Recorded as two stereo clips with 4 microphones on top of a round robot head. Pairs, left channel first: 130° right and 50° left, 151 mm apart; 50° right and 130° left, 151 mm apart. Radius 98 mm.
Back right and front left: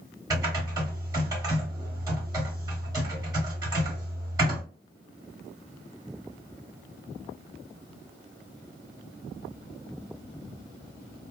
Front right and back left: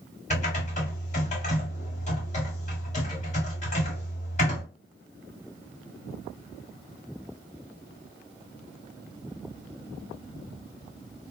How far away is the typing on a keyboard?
About 2.5 m.